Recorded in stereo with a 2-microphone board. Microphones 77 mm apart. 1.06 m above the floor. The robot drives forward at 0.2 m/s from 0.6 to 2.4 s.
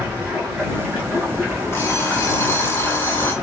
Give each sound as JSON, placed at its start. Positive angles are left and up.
{"t": 0.0, "sound": "running water", "side_deg": -20, "distance_m": 1.7}
{"t": 1.7, "sound": "an alarm clock", "side_deg": 35, "distance_m": 0.7}